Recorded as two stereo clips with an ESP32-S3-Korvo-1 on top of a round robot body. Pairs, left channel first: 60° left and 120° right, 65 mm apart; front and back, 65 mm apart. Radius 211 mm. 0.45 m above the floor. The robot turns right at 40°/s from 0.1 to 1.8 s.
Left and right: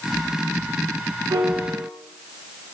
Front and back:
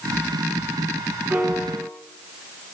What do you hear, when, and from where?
1.3 s a piano: 115° right, 7 m; by 1.9 s 95° right, 7 m